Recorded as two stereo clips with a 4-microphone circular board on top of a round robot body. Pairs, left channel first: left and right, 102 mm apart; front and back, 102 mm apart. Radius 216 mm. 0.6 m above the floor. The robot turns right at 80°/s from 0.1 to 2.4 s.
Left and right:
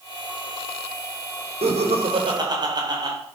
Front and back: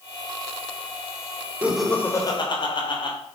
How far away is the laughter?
About 3.5 m.